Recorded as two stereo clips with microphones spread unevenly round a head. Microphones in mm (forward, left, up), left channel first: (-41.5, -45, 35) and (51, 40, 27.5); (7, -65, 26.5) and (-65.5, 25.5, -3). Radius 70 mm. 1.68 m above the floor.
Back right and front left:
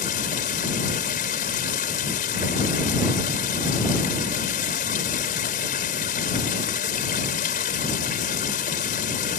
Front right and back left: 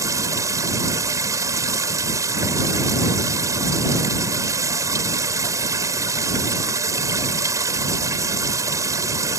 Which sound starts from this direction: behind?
Running water, at 0.0 s.